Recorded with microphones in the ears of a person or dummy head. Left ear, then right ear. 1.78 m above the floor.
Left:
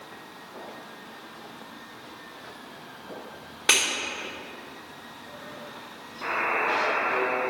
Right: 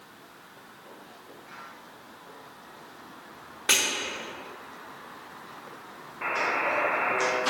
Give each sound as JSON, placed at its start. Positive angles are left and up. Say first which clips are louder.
{"t": 3.7, "sound": "breaking glass", "louder": "left 2 dB", "side_deg": 5, "distance_m": 1.3}
{"t": 6.2, "sound": "a buzzer", "louder": "left 1 dB", "side_deg": -80, "distance_m": 1.4}